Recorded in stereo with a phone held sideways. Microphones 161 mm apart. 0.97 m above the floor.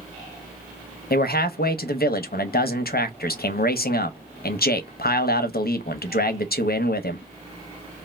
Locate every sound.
1.1 s a man speaking: 75° left (ahead or behind), 0.6 m